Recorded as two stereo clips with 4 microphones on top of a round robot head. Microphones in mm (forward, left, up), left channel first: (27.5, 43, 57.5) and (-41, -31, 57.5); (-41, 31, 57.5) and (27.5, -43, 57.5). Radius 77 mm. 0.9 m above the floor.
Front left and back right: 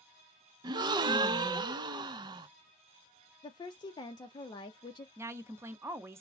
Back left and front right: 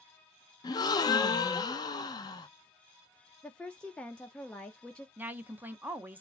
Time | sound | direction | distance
0.6 | a gasp | 175° right | 0.6 m
3.4 | a woman speaking | 60° left | 0.6 m
5.2 | a woman speaking | 100° right | 0.6 m